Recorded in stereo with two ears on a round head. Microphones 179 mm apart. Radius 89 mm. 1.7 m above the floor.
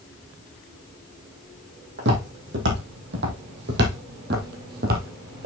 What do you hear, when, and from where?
2.0 s footsteps: 55° right (ahead or behind), 3.5 m; by 5.5 s 45° right (ahead or behind), 2.5 m